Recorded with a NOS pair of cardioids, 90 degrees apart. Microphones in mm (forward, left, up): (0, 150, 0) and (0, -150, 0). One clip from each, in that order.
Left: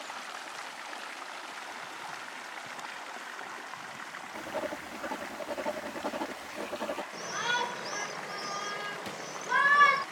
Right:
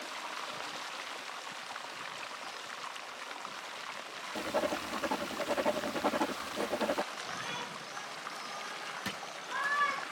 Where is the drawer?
30° right.